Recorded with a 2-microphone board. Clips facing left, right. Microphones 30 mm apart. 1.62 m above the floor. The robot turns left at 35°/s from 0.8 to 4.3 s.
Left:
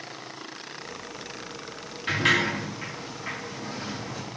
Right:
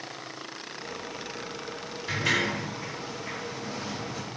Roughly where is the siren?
No siren in this recording.